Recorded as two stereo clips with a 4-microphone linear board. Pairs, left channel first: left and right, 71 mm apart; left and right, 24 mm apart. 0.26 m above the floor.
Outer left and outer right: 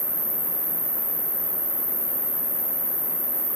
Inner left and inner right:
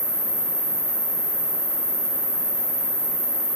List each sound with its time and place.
0.0 s an insect: 20° left (ahead or behind), 0.8 m